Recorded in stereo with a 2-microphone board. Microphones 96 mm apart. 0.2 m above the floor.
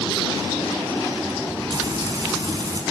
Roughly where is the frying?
Right.